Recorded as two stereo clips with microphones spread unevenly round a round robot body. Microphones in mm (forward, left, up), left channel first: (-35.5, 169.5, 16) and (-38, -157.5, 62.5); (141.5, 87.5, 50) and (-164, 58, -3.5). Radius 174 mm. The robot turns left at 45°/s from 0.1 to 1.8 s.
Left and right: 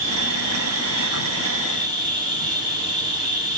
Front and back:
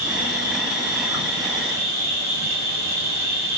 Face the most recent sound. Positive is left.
turn(degrees=-170)